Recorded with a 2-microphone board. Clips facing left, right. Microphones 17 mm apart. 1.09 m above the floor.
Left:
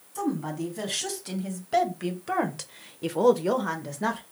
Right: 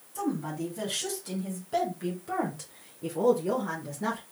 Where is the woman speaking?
15° left (ahead or behind), 1.9 m; by 4.2 s 40° left (ahead or behind), 0.8 m.